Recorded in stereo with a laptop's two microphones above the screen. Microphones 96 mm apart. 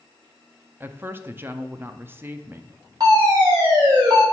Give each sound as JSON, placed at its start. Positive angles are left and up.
{"t": 0.8, "sound": "a woman speaking", "side_deg": -25, "distance_m": 0.6}
{"t": 3.0, "sound": "a fire alarm", "side_deg": -45, "distance_m": 3.0}